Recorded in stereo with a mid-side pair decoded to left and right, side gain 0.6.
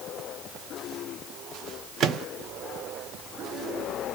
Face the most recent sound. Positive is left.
turn(degrees=-50)